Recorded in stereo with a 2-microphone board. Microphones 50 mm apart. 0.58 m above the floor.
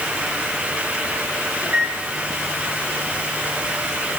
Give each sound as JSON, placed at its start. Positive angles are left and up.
{"t": 1.6, "sound": "a microwave", "side_deg": -55, "distance_m": 4.0}